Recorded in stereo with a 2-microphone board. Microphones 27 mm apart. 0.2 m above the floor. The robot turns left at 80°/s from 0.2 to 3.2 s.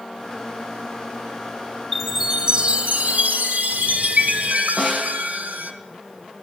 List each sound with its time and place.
1.9 s a chime: 15° left, 1.4 m; by 5.7 s 85° right, 1.4 m
4.8 s a snare drum: 10° left (ahead or behind), 6 m